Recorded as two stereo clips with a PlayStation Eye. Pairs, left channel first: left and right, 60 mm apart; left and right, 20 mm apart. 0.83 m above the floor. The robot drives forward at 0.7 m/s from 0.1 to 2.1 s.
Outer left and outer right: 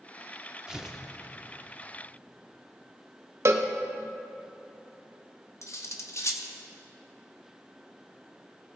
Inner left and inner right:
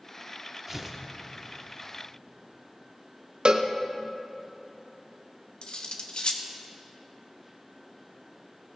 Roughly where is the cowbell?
Right.